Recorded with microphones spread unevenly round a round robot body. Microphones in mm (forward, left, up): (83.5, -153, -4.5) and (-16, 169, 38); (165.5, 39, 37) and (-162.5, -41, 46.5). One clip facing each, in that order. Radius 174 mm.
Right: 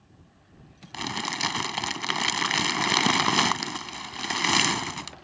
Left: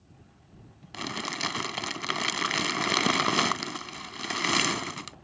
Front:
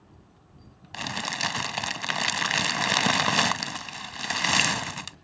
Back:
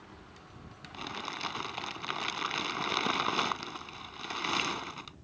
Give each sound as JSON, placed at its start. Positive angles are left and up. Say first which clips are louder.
{"t": 0.9, "sound": "crumpling", "louder": "right 1 dB, front 6 dB", "azimuth_deg": 5}